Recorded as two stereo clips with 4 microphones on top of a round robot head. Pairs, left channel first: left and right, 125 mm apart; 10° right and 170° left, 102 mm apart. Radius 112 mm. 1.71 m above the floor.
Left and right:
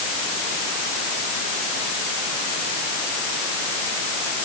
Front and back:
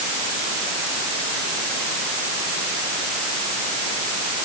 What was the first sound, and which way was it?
Only background noise.